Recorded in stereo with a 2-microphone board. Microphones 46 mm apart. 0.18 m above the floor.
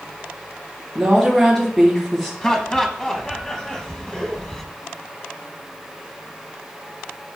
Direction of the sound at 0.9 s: 5° left (ahead or behind).